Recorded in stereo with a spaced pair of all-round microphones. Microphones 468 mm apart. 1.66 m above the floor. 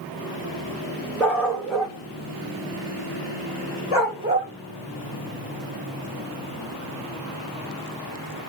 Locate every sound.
1.2 s a dog barking: 5° left (ahead or behind), 1.6 m; by 4.5 s 25° right (ahead or behind), 1.4 m